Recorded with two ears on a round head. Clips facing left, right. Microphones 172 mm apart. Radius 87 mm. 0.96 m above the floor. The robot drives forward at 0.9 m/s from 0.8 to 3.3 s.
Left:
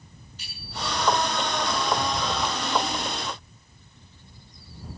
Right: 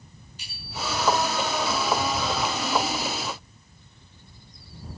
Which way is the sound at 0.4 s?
10° right (ahead or behind).